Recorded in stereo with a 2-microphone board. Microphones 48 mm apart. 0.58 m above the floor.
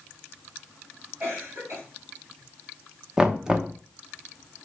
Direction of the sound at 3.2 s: 10° right (ahead or behind).